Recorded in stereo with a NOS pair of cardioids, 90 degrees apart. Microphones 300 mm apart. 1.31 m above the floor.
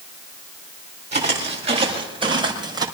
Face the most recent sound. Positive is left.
turn(degrees=-15)